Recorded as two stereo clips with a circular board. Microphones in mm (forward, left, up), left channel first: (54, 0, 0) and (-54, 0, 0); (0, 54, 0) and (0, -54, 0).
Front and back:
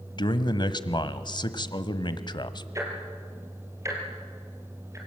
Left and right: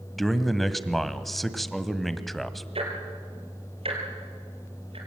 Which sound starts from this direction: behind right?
Ticking, at 2.8 s.